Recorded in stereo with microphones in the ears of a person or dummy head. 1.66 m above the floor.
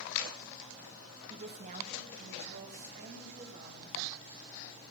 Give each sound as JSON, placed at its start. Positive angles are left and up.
{"t": 1.3, "sound": "a woman speaking", "side_deg": -30, "distance_m": 1.0}